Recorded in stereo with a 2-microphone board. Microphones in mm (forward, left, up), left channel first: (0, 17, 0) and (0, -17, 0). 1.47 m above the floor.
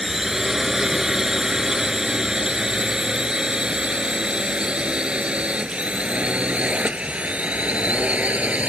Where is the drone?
10° right (ahead or behind); by 8.7 s 50° right (ahead or behind).